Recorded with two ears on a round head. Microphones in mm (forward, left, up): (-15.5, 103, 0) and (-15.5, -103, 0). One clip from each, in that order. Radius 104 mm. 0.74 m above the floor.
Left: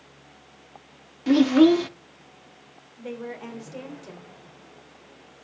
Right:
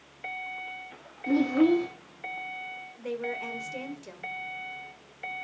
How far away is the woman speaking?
About 2.5 m.